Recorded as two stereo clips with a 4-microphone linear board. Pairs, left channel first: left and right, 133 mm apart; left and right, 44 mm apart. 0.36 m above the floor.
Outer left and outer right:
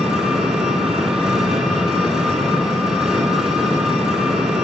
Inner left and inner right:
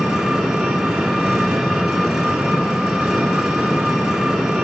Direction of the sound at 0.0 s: 5° right (ahead or behind).